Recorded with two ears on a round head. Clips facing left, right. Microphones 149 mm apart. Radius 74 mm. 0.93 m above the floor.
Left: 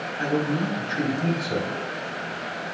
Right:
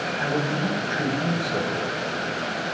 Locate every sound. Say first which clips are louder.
0.2 s a man speaking: left 3 dB; 65° left (ahead or behind), 4 m